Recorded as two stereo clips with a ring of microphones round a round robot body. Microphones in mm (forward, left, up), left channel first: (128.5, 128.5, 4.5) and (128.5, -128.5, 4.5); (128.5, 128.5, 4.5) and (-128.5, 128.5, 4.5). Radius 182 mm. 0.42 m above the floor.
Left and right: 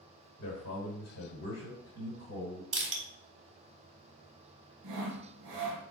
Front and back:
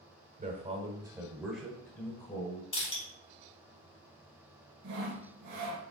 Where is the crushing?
50° right, 1.3 m.